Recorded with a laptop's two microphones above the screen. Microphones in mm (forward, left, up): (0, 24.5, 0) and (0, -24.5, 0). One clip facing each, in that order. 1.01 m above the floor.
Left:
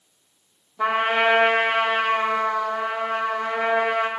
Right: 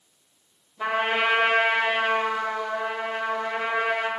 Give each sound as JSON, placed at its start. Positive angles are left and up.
{"t": 0.8, "sound": "a trumpet", "side_deg": 75, "distance_m": 2.5}